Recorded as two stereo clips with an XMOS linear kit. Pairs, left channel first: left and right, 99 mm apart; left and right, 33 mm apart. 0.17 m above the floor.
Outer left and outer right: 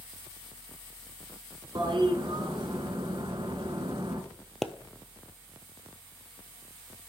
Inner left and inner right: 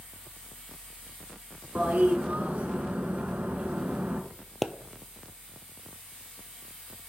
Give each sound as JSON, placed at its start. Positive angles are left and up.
{"t": 1.8, "sound": "a toilet flushing", "side_deg": -55, "distance_m": 1.4}
{"t": 4.6, "sound": "a pop", "side_deg": 0, "distance_m": 0.7}